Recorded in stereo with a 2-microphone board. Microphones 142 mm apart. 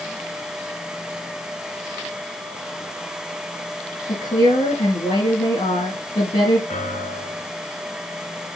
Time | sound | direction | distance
4.1 | a woman speaking | 55° left (ahead or behind) | 3 m
6.7 | a piano | 60° left (ahead or behind) | 3.5 m